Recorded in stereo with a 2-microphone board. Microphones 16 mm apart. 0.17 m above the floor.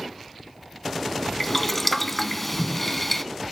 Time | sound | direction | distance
1.4 | boiling | 10° left (ahead or behind) | 0.5 m